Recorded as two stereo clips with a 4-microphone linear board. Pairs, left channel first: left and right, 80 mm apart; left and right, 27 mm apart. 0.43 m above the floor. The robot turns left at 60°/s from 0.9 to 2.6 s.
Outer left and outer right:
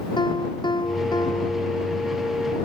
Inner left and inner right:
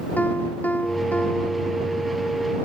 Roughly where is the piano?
Left.